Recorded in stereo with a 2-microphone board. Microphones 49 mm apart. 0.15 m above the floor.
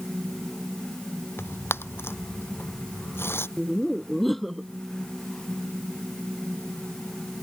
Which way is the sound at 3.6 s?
Centre (ahead or behind).